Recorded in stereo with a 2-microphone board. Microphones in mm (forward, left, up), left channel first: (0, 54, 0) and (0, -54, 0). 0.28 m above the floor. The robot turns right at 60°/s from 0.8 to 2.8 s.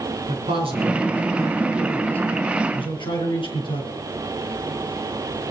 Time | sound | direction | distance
0.3 | a man speaking | 65° right | 4.5 m